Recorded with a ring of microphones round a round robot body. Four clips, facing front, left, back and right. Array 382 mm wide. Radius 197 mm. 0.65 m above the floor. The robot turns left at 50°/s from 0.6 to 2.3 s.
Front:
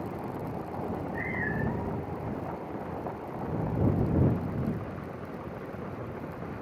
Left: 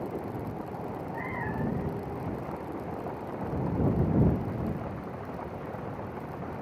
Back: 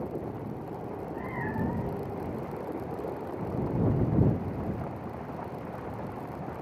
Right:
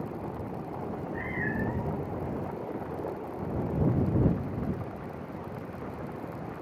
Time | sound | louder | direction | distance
0.8 | a cat meowing | even, front 4 dB | 15° right | ?